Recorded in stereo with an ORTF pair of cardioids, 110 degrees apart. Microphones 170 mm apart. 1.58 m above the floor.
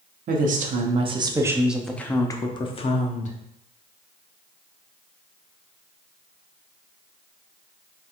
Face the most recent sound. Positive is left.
turn(degrees=45)